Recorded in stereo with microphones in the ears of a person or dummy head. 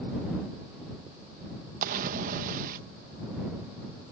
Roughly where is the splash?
Right.